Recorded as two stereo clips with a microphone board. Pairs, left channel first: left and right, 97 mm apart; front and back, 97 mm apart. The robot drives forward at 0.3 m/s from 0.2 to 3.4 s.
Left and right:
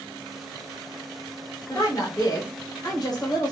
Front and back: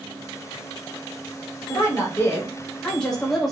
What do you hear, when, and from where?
1.7 s a woman speaking: 50° left, 1.0 m; by 3.5 s 90° left, 0.9 m